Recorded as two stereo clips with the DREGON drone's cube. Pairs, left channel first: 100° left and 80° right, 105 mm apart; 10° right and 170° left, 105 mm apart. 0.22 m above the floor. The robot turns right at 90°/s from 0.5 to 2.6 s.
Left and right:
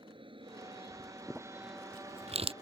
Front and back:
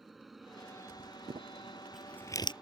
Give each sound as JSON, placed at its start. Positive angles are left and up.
{"t": 0.0, "sound": "an aircraft", "azimuth_deg": -100}
{"t": 1.3, "sound": "crumpling", "azimuth_deg": -165}